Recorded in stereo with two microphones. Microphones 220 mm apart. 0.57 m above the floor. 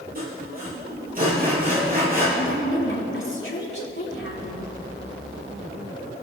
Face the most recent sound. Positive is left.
turn(degrees=70)  # may be behind; listen again after turning